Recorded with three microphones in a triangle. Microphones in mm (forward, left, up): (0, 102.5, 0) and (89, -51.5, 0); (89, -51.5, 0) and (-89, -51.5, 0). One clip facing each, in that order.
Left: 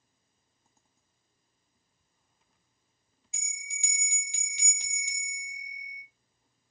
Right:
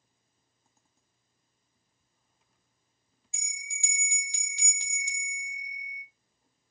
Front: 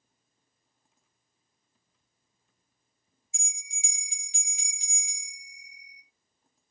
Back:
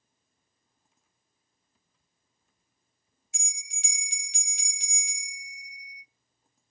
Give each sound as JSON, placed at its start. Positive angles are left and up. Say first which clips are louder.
{"t": 3.3, "sound": "a bell", "louder": "right 1 dB, back 1 dB", "azimuth_deg": -170, "distance_m": 0.9}